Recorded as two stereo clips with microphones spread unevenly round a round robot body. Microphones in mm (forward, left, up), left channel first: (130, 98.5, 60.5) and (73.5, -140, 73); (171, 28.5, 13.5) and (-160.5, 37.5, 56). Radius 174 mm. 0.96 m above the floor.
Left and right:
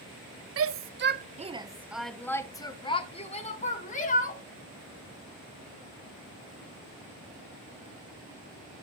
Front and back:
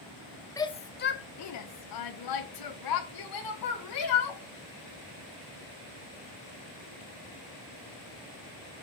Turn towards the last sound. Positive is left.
turn(degrees=20)